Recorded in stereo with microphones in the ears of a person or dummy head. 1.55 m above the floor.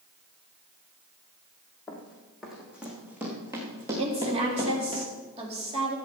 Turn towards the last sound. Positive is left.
turn(degrees=-35)  # may be behind; listen again after turning